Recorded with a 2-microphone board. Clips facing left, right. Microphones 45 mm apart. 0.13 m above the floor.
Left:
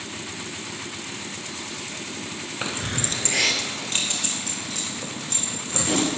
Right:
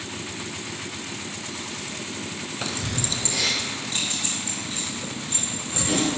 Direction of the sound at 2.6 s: 20° left (ahead or behind).